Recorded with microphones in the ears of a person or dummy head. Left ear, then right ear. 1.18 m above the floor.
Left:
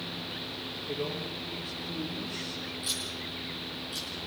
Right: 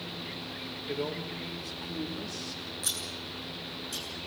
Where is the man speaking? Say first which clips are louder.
Right 1 dB; 35° right (ahead or behind), 3.5 m.